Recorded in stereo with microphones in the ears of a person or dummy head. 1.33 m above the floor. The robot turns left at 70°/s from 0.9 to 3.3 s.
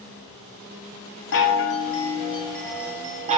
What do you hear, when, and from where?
1.3 s a chime: 95° left, 0.5 m; by 3.4 s 40° right, 0.5 m